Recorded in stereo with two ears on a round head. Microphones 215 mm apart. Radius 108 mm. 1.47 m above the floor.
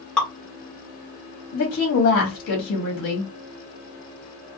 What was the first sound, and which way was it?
Dripping, 5° left (ahead or behind).